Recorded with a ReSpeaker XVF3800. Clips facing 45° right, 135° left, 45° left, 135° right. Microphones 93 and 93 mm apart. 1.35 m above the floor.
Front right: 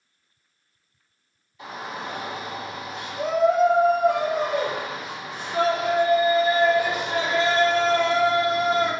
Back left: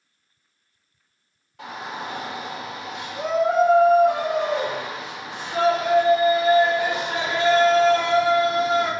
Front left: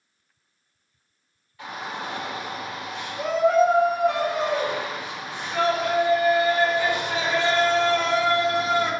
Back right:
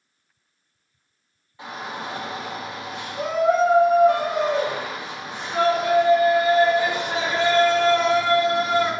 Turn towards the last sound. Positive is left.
turn(degrees=160)